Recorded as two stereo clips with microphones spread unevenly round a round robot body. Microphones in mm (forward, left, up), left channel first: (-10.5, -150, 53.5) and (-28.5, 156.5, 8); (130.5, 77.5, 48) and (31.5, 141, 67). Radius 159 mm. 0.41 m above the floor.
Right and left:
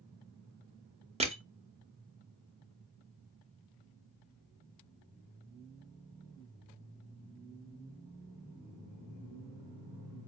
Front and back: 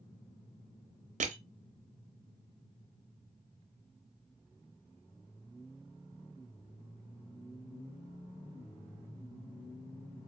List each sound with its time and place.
1.2 s crushing: 155° left, 0.6 m